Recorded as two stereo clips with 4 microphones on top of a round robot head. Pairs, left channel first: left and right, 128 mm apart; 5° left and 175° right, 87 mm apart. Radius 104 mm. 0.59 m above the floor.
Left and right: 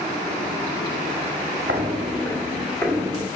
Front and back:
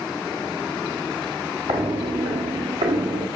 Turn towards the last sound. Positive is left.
turn(degrees=160)